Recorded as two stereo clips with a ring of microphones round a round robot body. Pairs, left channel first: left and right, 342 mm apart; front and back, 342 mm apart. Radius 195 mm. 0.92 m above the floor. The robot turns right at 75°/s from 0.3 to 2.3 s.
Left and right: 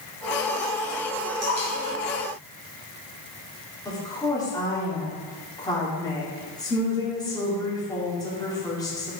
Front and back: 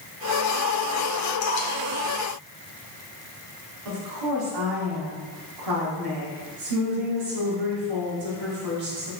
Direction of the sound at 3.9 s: 170° left.